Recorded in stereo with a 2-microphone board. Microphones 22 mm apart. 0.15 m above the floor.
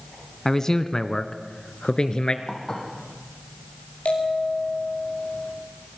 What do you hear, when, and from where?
0.5 s a man speaking: 20° left (ahead or behind), 1.2 m; by 2.4 s 40° left (ahead or behind), 2 m
2.5 s dishes clattering: 20° left (ahead or behind), 4.5 m
4.0 s a bell: 70° left (ahead or behind), 9 m